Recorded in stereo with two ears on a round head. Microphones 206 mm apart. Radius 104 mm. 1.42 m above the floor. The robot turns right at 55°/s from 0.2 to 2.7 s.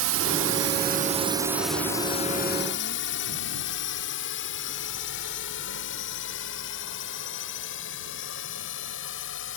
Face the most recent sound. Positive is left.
turn(degrees=55)  # may be behind; listen again after turning